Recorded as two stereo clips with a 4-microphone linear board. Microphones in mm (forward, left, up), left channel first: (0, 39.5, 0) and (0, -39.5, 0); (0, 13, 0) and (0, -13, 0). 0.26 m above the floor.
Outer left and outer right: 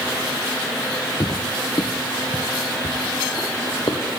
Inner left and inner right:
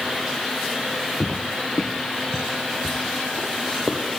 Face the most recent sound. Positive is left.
turn(degrees=50)  # may be behind; listen again after turning